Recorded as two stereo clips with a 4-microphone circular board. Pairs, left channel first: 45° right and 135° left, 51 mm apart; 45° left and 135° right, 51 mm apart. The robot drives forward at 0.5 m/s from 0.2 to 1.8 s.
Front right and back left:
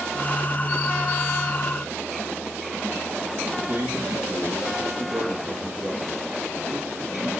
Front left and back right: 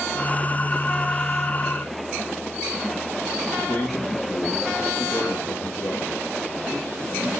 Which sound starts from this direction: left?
A man speaking, at 3.6 s.